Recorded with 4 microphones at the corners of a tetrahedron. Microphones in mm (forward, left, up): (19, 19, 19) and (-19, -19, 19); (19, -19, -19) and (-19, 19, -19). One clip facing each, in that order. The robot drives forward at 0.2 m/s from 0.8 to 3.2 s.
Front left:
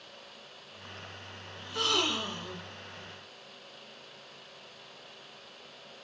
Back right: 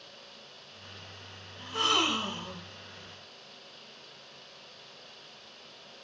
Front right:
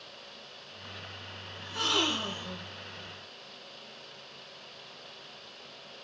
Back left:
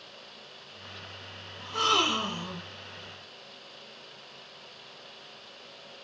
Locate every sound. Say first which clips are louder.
1.6 s a gasp: back right 2 dB, back left 4 dB; 170° left, 1.6 m